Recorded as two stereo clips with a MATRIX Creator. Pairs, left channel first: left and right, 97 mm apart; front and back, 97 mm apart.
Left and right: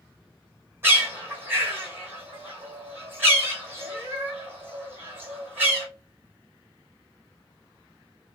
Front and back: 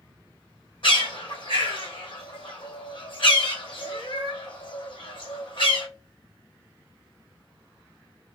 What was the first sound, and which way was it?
A bird, 25° right.